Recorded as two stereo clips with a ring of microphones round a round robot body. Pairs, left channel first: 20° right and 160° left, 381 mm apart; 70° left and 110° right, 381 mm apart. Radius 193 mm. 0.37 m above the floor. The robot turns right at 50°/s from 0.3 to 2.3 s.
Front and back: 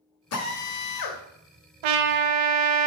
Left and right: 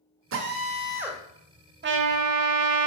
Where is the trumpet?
175° right, 0.6 m; by 2.9 s 155° right, 0.6 m.